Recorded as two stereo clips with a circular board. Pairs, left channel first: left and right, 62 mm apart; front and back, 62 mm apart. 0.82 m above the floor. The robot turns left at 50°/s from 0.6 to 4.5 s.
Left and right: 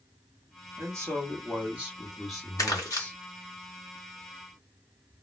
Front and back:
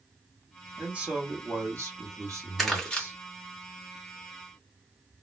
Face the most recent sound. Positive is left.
turn(degrees=-5)